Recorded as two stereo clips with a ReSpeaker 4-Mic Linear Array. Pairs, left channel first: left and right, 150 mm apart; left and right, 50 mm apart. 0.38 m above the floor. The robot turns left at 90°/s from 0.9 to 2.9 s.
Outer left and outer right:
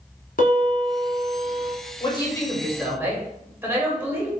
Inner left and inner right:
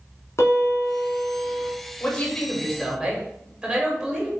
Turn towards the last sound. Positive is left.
turn(degrees=-20)